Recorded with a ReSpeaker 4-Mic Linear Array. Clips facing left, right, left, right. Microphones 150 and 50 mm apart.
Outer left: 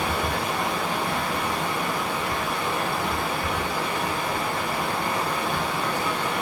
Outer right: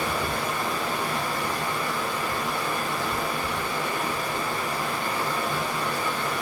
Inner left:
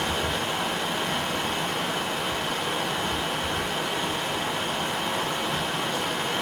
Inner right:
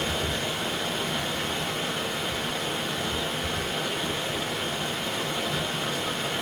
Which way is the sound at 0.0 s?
20° left (ahead or behind).